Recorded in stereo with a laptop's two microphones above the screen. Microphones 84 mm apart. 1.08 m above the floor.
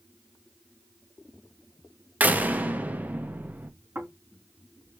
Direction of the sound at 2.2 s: 20° right (ahead or behind).